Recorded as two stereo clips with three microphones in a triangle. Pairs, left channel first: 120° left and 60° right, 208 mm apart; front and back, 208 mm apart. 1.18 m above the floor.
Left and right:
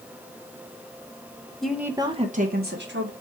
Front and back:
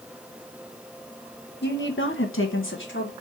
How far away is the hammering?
I don't hear hammering.